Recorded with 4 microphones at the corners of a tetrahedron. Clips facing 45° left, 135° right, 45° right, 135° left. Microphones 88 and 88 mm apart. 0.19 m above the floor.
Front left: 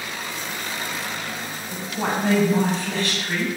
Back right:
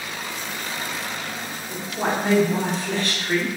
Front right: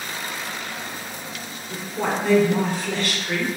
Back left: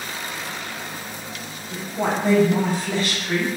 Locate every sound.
1.7 s a woman speaking: 75° right, 2.0 m